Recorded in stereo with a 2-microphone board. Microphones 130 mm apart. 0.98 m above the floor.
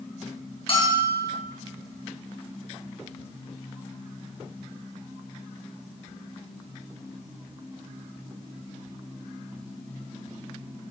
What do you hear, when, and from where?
0.7 s a bell: 45° left (ahead or behind), 5 m